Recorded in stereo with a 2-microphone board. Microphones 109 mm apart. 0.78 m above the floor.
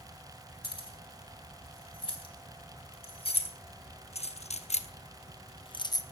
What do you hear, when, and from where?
0.6 s keys jangling: 45° left (ahead or behind), 3 m; by 6.0 s 35° left (ahead or behind), 0.6 m